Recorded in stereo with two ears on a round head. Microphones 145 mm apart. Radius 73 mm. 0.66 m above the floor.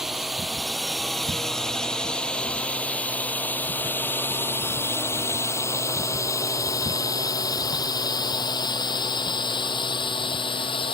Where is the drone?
Centre (ahead or behind); by 10.9 s 35° left (ahead or behind).